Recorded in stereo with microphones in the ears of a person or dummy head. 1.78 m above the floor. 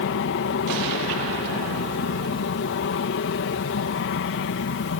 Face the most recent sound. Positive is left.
turn(degrees=65)  # may be behind; listen again after turning